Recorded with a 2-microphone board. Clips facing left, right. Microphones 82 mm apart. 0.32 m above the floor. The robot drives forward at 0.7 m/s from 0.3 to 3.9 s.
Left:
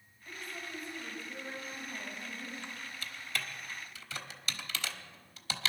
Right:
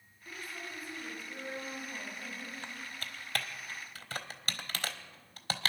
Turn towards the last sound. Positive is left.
turn(degrees=-50)  # may be behind; listen again after turning